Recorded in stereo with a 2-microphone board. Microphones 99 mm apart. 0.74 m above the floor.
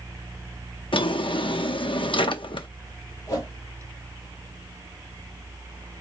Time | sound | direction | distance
0.9 | a drawer | 60° left (ahead or behind) | 0.6 m
3.3 | a whoosh | 40° left (ahead or behind) | 2 m